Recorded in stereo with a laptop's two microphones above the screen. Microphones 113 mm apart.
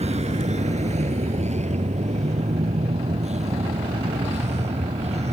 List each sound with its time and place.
0.0 s a vehicle: 75° right (ahead or behind)